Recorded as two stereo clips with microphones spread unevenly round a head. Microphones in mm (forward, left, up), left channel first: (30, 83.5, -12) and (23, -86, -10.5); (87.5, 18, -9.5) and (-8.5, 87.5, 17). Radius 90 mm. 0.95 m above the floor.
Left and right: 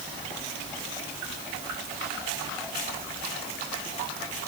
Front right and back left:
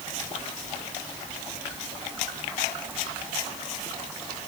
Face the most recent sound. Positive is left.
No sound to turn to.